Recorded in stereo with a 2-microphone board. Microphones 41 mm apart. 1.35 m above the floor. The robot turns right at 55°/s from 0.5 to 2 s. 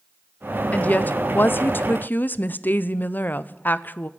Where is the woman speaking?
45° left, 0.6 m; by 4.1 s 115° left, 0.6 m.